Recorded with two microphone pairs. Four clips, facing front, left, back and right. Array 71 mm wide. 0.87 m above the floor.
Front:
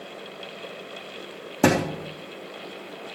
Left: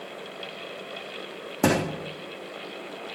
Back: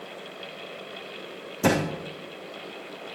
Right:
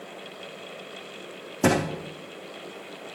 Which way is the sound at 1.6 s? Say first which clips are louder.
Right 1 dB, front 3 dB; 30° left.